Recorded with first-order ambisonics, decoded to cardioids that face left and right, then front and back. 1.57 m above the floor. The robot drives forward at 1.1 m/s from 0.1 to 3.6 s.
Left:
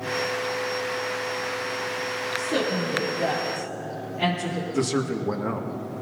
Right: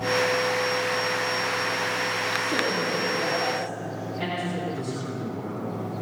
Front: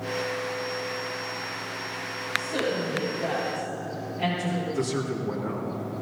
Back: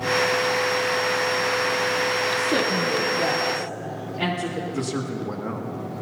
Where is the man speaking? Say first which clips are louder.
Left 6 dB, even; 110° left, 2 m.